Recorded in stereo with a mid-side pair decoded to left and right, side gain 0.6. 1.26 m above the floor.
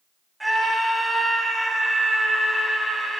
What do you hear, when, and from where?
0.4 s a scream: 10° right, 8 m